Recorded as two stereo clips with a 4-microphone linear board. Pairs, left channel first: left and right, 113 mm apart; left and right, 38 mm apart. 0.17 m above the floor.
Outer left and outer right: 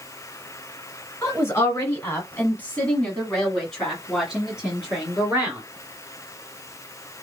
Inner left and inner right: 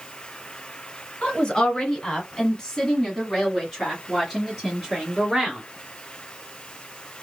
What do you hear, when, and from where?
1.2 s a woman speaking: 25° left (ahead or behind), 1.9 m; by 5.6 s 10° right (ahead or behind), 2.5 m